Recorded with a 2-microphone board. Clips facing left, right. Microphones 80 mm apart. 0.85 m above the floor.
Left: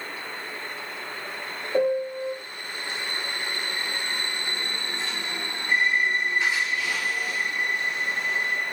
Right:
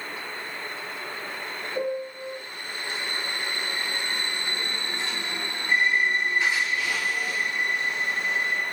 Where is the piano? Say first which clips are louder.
Left 7 dB; 85° left, 0.8 m.